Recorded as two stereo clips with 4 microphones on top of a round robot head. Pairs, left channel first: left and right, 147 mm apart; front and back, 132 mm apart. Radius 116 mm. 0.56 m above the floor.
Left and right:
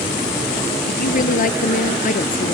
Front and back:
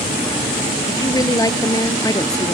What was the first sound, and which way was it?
A woman speaking, 65° left.